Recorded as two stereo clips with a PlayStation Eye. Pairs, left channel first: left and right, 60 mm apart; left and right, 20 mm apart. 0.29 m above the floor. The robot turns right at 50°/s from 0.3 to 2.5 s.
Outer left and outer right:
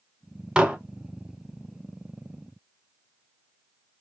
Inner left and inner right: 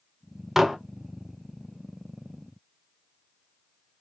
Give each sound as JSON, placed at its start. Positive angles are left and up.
{"t": 0.6, "sound": "dishes clattering", "side_deg": -15, "distance_m": 0.6}